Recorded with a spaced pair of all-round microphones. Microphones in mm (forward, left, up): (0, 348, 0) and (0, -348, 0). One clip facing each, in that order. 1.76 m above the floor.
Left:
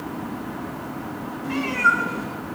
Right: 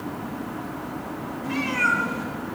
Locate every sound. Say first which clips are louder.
1.4 s a cat meowing: left 1 dB; 20° right (ahead or behind), 1.0 m